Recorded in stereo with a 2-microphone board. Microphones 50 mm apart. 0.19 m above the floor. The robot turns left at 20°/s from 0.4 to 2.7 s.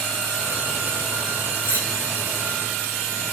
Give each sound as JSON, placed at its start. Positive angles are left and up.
{"t": 1.6, "sound": "cutlery clinking", "side_deg": -35, "distance_m": 7.0}